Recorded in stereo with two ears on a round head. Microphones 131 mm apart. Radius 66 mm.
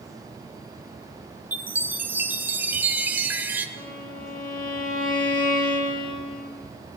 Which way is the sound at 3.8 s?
60° left (ahead or behind).